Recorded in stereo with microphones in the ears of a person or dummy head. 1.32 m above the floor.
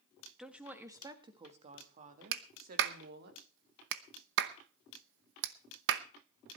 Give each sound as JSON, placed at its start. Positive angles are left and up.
{"t": 0.4, "sound": "a woman speaking", "side_deg": 5, "distance_m": 1.5}
{"t": 2.3, "sound": "a clap", "side_deg": -70, "distance_m": 0.8}